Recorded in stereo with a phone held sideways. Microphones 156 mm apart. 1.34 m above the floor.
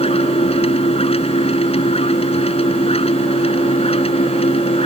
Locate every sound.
0.0 s a machine running: 40° left (ahead or behind)